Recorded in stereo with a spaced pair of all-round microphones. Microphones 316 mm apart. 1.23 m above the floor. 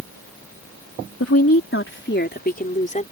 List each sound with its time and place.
1.2 s a woman speaking: 50° left (ahead or behind); by 3.0 s 25° left (ahead or behind)